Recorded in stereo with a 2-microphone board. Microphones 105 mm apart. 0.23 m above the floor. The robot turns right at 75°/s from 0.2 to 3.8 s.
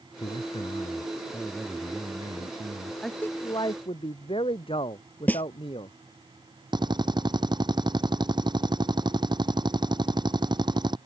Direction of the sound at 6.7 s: 45° right (ahead or behind).